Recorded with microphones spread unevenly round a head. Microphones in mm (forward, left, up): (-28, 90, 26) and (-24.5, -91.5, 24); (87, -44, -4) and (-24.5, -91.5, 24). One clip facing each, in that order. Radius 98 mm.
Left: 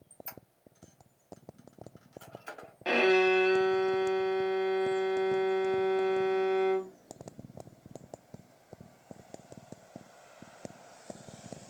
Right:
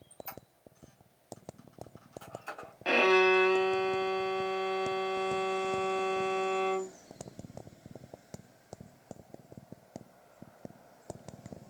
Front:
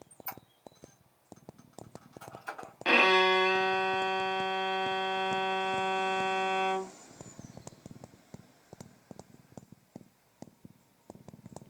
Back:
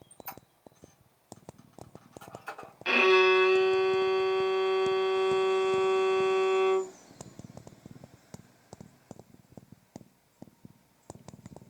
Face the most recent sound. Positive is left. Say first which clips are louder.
# even, back 3 dB
turn(degrees=0)